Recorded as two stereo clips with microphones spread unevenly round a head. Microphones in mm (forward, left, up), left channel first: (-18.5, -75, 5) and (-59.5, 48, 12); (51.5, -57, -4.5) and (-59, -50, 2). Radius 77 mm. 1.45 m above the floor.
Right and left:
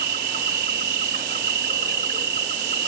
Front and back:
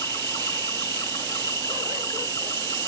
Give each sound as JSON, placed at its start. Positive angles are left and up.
{"t": 0.0, "sound": "an insect", "azimuth_deg": 70}